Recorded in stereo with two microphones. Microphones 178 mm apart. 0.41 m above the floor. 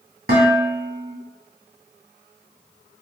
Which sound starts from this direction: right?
Dishes clattering, at 0.3 s.